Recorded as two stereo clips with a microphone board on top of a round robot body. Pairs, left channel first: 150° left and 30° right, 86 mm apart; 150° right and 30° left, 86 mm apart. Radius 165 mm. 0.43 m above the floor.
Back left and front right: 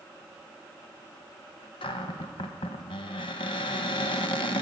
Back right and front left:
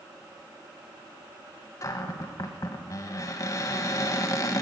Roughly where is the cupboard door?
Behind.